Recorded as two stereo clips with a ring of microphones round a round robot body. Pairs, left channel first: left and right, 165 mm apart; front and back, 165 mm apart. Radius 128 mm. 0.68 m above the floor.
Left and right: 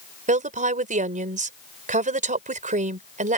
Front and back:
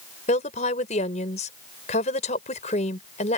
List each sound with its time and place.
0.3 s a woman speaking: 55° right